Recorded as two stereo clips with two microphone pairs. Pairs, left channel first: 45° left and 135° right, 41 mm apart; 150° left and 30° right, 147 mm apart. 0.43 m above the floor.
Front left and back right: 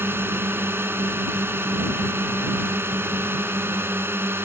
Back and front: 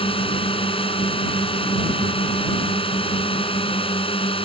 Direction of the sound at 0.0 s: 155° right.